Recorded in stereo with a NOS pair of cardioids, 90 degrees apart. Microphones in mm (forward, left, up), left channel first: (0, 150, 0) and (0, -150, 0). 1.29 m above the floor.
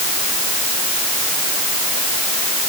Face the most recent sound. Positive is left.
No sound to turn to.